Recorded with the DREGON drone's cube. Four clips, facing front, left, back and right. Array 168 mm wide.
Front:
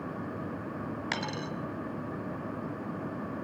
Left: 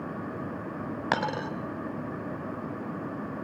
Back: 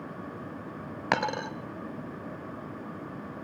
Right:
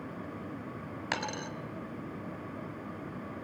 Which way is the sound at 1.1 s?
140° left.